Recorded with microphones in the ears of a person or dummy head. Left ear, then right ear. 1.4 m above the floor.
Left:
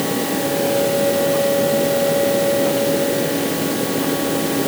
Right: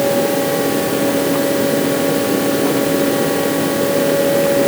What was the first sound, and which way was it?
Only background noise.